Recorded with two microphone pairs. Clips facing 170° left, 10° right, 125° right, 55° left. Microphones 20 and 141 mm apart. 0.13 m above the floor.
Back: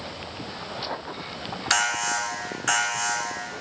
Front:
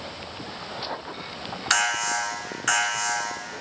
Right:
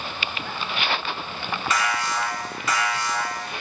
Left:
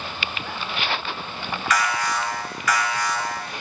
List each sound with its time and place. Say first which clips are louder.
1.7 s an alarm: front 1 dB, left 2 dB; 80° right, 2.5 m